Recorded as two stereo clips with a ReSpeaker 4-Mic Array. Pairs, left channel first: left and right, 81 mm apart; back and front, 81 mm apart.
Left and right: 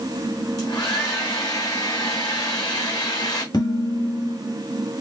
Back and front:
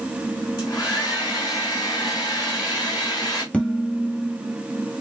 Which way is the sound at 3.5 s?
105° left.